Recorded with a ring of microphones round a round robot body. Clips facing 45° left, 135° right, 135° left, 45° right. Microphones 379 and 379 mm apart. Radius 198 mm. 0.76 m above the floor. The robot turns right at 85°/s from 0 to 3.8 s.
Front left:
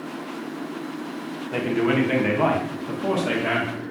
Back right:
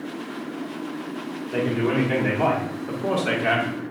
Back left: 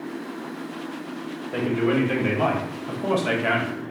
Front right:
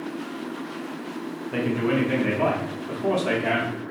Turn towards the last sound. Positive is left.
turn(degrees=-170)